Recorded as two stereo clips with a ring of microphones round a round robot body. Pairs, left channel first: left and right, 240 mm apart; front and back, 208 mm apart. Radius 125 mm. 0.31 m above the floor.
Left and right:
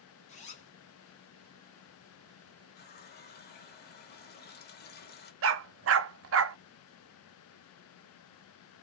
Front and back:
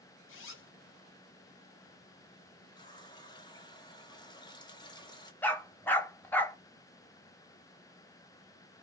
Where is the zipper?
25° left, 1.0 m.